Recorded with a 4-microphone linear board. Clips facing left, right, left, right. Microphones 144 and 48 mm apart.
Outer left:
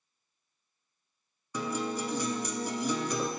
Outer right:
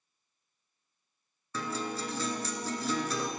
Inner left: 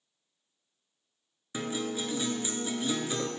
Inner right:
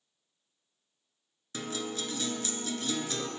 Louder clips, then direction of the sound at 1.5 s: Outer left 3 dB, inner left 3 dB; 15° left (ahead or behind).